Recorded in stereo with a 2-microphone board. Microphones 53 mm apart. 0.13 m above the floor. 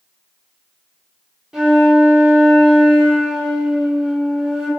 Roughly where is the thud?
I don't hear a thud.